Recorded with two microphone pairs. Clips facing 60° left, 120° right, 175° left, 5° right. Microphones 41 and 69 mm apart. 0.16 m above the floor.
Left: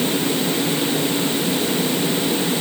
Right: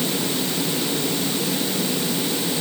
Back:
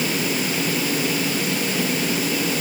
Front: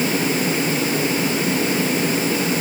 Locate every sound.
Only background noise.